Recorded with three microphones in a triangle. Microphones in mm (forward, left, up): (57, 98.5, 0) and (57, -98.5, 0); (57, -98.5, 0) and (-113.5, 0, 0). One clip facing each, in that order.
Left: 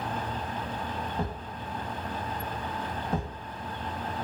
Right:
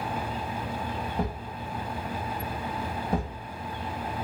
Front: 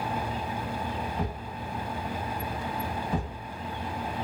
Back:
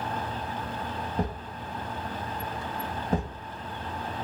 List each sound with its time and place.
1.2 s a thud: 160° right, 0.7 m